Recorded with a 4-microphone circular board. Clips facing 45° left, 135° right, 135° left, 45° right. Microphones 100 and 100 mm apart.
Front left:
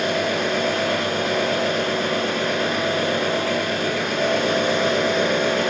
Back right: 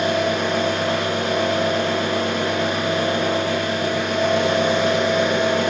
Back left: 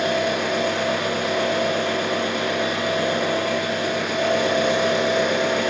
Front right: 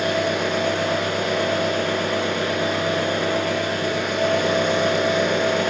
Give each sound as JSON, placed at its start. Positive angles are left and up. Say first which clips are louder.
{"t": 0.0, "sound": "an engine running", "louder": "back right 2 dB, even", "azimuth_deg": -170, "distance_m": 1.0}